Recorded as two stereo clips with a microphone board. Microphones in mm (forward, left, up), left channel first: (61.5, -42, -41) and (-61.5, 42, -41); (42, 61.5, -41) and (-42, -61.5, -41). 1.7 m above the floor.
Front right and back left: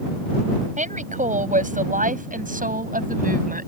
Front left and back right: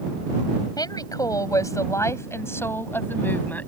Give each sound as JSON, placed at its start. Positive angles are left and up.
{"t": 0.8, "sound": "a woman speaking", "azimuth_deg": 120}